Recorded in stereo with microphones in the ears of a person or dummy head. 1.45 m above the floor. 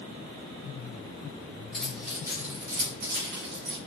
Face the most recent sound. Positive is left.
turn(degrees=-65)  # may be behind; listen again after turning